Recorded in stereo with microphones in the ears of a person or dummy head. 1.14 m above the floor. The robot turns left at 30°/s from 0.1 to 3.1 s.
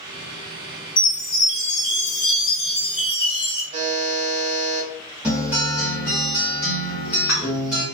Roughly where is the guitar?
Centre.